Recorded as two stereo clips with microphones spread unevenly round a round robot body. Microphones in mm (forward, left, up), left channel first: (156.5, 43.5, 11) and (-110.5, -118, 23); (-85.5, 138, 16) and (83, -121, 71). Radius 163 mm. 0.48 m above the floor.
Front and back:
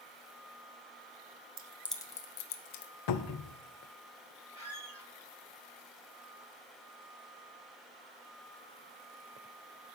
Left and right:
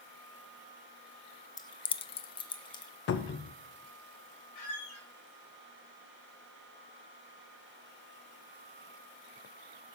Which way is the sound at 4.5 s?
130° left.